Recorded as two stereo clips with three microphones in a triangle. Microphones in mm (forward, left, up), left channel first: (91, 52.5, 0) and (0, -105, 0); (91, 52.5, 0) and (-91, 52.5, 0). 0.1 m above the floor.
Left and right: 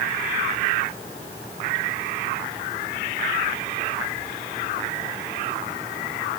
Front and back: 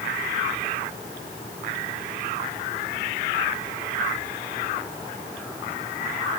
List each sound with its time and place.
Only background noise.